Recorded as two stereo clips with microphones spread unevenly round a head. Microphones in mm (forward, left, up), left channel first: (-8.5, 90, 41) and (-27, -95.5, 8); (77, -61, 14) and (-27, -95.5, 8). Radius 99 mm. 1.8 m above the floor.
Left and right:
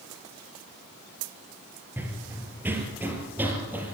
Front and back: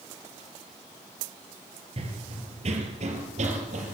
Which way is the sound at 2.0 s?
175° left.